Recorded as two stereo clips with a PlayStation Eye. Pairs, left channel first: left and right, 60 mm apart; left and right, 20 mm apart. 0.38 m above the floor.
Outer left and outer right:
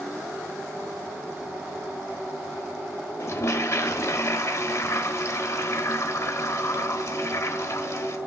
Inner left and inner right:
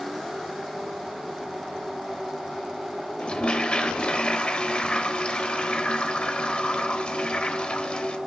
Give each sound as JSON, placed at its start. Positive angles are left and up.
{"t": 3.2, "sound": "a toilet flushing", "side_deg": 50, "distance_m": 0.8}